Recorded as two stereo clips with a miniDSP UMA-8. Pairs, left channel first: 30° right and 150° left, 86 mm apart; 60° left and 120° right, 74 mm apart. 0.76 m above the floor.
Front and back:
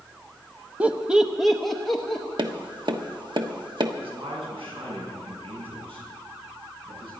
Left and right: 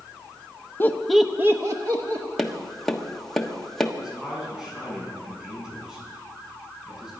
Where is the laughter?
85° left, 0.8 m; by 2.2 s 110° right, 1.5 m.